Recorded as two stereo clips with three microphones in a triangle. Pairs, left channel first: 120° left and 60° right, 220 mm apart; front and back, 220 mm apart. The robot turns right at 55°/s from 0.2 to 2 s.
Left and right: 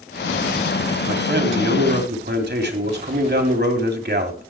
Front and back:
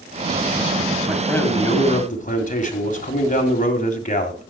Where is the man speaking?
95° right, 2 m; by 4.5 s 40° right, 2 m.